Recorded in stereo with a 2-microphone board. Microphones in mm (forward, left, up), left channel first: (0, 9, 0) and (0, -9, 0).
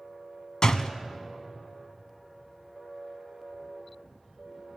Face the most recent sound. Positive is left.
turn(degrees=40)  # may be behind; listen again after turning